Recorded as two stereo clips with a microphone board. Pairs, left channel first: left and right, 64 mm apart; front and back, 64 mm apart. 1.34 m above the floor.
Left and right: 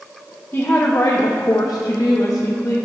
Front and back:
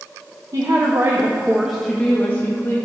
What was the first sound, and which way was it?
A woman speaking, 150° left.